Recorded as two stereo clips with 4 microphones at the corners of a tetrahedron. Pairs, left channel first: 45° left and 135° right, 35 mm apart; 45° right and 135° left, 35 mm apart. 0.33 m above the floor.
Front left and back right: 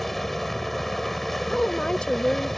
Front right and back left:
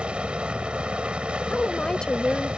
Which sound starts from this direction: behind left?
A helicopter, at 0.0 s.